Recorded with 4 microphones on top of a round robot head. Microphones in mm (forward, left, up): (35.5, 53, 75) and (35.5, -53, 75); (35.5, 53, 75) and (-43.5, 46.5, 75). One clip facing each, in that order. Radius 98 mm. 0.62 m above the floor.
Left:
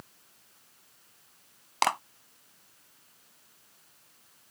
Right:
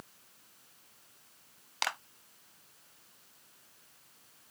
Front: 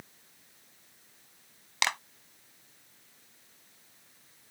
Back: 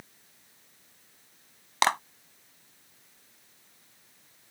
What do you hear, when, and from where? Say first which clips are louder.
1.8 s a clap: left 10 dB, back 7 dB; 140° left